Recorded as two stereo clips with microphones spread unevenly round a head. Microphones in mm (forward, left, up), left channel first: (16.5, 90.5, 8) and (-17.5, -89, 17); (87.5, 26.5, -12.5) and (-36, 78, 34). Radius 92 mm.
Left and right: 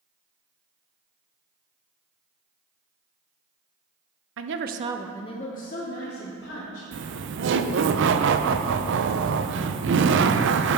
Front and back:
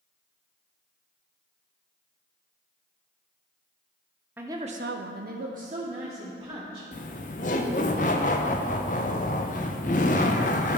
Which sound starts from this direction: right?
Laughter, at 6.9 s.